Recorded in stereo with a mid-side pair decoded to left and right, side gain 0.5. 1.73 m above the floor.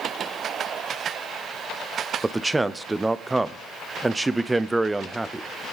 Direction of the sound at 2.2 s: 20° right.